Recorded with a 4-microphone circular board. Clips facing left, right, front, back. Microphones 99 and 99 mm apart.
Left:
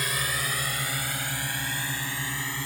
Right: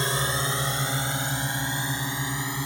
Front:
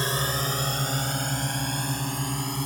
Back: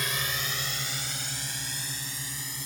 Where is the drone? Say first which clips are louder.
Right 4 dB, front 6 dB; 40° right; by 2.7 s 20° right.